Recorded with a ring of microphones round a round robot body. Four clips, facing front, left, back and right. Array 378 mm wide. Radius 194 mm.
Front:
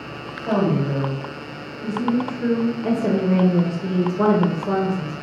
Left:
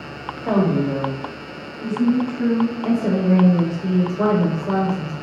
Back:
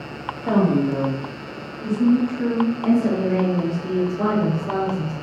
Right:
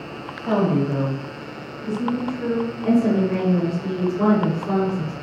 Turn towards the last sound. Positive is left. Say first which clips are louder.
# right 4 dB, back 1 dB
turn(degrees=25)